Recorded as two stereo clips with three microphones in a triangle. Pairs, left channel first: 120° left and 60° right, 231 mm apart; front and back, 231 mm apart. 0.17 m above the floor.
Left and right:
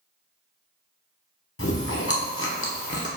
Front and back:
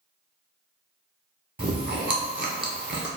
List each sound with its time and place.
1.6 s chewing: 140° left, 1.0 m